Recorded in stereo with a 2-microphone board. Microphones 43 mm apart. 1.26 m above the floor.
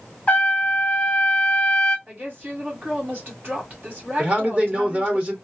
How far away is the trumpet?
About 0.8 m.